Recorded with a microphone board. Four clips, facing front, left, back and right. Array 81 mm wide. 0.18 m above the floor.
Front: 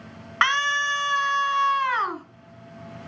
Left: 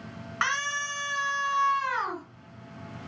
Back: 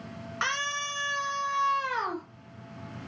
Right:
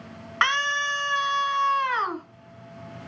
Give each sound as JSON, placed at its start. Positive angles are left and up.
{"t": 0.4, "sound": "a scream", "azimuth_deg": -25, "distance_m": 1.7}